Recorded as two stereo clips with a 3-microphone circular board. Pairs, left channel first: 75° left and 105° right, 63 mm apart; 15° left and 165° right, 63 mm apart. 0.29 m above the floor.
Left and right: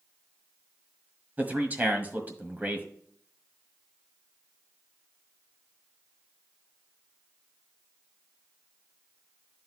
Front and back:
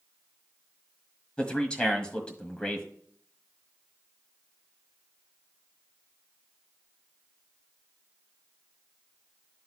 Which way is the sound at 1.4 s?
55° right.